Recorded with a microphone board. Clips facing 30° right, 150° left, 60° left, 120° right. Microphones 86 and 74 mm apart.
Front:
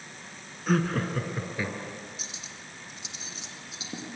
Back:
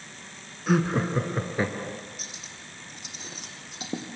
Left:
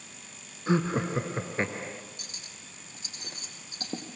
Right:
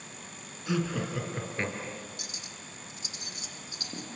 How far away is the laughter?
About 1.7 m.